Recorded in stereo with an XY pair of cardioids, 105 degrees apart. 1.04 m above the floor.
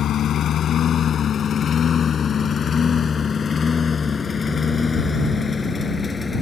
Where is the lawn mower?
65° left; by 6.4 s 30° left.